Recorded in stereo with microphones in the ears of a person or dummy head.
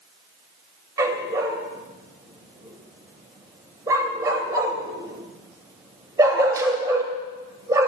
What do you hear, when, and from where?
1.0 s a dog barking: 15° right (ahead or behind), 2.5 m